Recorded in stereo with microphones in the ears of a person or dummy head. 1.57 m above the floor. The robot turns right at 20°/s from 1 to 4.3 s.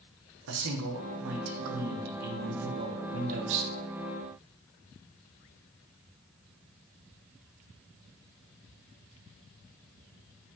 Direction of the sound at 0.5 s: 120° right.